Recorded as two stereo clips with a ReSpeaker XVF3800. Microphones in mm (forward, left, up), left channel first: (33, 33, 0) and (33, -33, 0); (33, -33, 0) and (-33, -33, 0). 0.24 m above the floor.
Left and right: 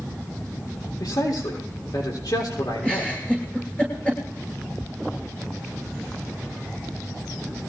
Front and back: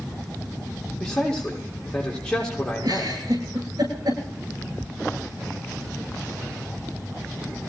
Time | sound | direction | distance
1.0 | a man speaking | 80° left | 6 m
2.8 | a giggle | 160° left | 10 m